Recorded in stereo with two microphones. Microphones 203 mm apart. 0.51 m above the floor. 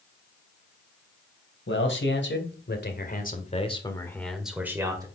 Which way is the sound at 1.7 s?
70° left (ahead or behind).